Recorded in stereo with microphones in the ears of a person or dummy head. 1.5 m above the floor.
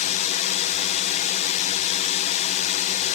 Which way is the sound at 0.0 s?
45° left (ahead or behind).